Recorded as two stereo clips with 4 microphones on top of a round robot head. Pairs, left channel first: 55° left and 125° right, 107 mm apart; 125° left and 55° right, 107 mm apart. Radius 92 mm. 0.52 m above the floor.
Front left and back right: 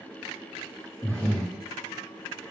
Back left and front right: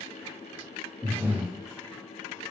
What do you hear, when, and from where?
1.0 s breathing: 10° right, 1.3 m